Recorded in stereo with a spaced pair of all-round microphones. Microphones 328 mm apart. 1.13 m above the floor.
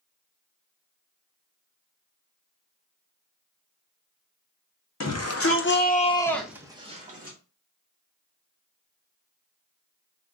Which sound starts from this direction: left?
A shout, at 5.0 s.